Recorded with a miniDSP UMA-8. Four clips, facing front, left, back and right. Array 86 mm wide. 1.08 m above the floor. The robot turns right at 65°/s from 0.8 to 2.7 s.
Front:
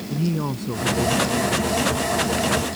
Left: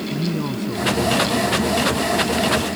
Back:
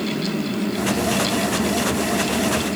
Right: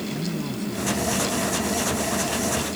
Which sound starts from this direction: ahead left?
A woman speaking, at 0.1 s.